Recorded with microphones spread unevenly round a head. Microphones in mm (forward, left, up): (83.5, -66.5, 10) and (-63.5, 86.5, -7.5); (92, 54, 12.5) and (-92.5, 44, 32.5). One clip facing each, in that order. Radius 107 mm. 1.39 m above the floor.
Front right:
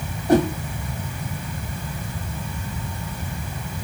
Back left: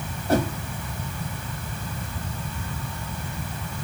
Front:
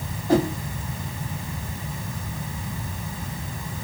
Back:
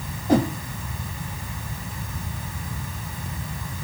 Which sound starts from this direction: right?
A whoosh, at 0.3 s.